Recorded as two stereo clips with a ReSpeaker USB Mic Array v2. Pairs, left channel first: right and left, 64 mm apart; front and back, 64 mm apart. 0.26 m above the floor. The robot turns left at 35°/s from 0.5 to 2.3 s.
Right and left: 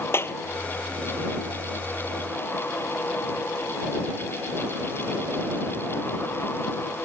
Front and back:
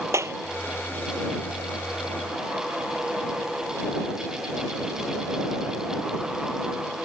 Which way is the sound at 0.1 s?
140° right.